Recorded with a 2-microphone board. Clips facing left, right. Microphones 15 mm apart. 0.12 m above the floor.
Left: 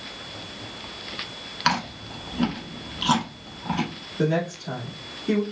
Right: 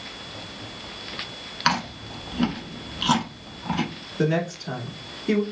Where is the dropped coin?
No dropped coin in this recording.